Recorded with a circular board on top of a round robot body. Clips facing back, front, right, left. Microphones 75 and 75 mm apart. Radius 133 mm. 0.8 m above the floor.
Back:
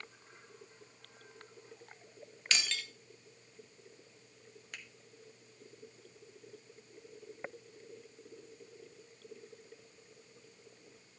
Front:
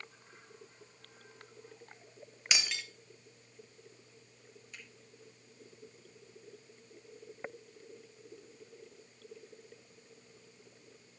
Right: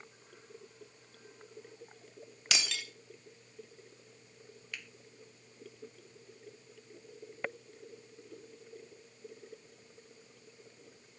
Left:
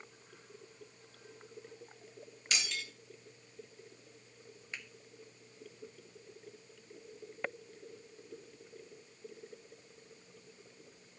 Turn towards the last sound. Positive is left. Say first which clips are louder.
# back 3 dB, even
turn(degrees=155)